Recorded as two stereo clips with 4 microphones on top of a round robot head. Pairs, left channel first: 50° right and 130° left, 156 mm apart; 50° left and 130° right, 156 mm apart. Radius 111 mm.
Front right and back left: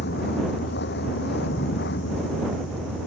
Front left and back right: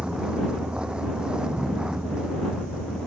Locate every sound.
0.0 s a vehicle: 45° right